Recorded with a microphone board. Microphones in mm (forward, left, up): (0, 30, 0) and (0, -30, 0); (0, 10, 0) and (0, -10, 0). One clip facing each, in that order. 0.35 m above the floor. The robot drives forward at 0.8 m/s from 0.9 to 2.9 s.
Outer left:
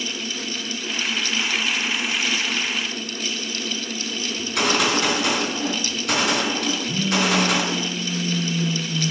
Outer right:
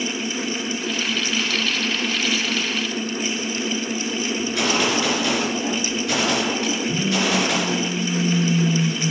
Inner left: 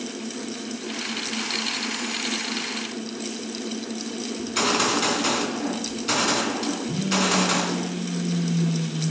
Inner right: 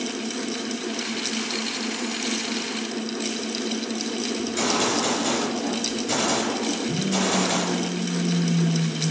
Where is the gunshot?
60° left (ahead or behind), 3.5 m.